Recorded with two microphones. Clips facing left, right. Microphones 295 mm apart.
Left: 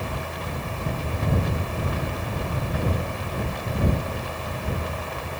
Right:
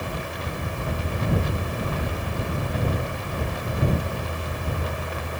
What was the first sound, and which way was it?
Only background noise.